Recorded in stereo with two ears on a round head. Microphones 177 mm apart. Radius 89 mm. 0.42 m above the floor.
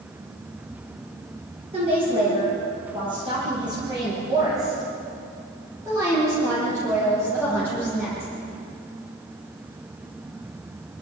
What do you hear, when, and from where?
1.7 s a woman speaking: 30° right (ahead or behind), 9 m; by 8.3 s 10° right (ahead or behind), 15 m